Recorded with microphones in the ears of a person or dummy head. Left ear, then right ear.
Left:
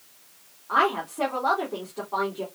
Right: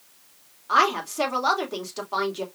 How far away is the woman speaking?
About 3 m.